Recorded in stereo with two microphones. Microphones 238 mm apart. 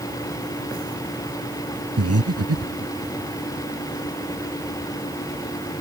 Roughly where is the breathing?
Right.